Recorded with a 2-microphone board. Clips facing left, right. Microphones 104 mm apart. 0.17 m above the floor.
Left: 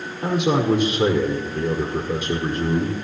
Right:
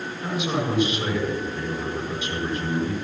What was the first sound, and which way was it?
A man speaking, 60° left (ahead or behind).